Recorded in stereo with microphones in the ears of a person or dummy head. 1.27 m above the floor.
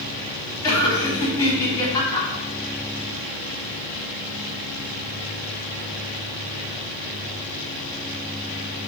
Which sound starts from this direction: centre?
Laughter, at 0.6 s.